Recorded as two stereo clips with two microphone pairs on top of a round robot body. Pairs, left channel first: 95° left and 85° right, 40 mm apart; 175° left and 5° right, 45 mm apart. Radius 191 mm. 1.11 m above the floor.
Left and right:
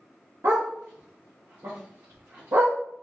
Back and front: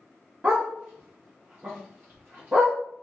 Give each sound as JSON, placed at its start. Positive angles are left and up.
{"t": 0.4, "sound": "a dog barking", "azimuth_deg": -60, "distance_m": 0.5}